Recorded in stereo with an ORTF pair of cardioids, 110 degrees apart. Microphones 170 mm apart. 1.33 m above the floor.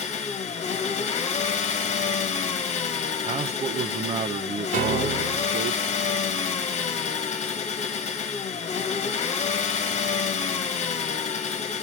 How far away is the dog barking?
I don't hear a dog barking.